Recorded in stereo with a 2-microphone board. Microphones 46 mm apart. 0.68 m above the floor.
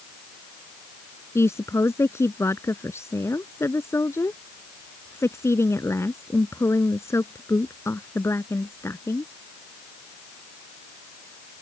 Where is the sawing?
No sawing in this recording.